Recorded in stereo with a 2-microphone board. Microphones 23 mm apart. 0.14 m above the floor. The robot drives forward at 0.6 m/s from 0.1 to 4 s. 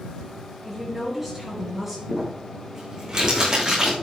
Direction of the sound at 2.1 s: 30° right (ahead or behind).